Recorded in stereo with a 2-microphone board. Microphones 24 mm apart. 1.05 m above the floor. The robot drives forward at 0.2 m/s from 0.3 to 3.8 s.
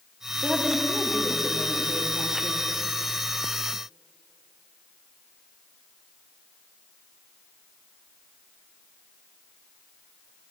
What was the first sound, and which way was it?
A woman speaking, 20° right (ahead or behind).